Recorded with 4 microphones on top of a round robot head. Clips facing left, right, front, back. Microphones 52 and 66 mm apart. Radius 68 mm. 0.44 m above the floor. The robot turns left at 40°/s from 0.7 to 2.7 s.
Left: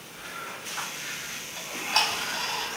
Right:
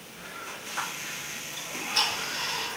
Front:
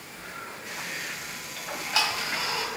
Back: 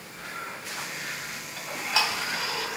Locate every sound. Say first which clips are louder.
1.6 s ticking: left 3 dB, back 1 dB; 100° left, 1.8 m; by 2.7 s 55° left, 1.8 m